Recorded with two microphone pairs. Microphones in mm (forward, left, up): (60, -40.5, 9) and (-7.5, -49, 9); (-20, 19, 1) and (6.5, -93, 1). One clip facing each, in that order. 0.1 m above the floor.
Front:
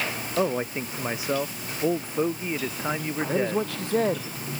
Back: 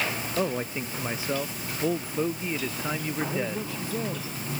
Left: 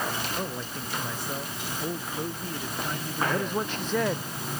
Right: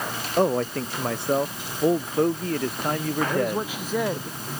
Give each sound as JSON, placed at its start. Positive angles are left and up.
{"t": 0.4, "sound": "a man speaking", "azimuth_deg": -60}
{"t": 3.3, "sound": "a man speaking", "azimuth_deg": 5}